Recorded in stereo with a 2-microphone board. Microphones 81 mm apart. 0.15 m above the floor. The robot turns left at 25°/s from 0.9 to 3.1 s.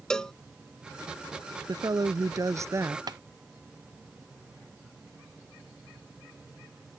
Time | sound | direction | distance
0.1 | a cowbell | 10° left (ahead or behind) | ?
1.7 | a woman speaking | 105° right | ?
3.1 | tapping | 55° right (ahead or behind) | ?